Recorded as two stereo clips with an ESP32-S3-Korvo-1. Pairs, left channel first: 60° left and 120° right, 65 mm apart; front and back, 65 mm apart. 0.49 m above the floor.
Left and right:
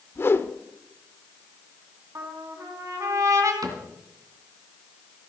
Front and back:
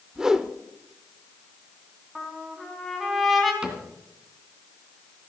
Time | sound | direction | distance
0.1 | a whoosh | 100° left | 0.9 m
2.1 | a trumpet | 90° right | 4 m
3.6 | a cupboard door | 105° right | 2.5 m